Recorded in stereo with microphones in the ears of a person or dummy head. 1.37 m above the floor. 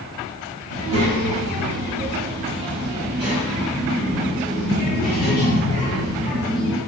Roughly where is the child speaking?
Right.